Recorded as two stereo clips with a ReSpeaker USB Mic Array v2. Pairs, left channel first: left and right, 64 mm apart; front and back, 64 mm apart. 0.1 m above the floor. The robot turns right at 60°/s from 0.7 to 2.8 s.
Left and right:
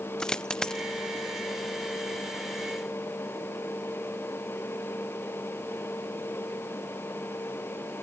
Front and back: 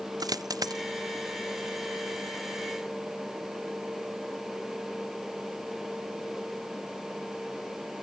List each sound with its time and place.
0.2 s a dropped coin: 170° left; by 0.8 s 175° left